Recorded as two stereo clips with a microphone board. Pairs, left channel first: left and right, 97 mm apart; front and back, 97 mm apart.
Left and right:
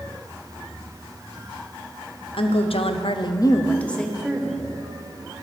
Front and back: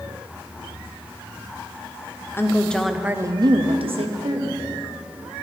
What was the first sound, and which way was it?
A woman speaking, 65° left.